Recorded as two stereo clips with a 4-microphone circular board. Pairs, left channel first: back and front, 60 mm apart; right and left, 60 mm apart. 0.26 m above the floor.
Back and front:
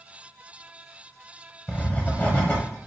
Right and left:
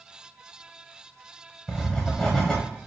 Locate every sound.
1.7 s writing: 160° right, 1.5 m